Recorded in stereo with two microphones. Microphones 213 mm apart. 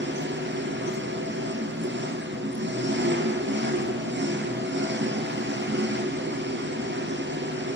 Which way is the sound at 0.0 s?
60° right (ahead or behind).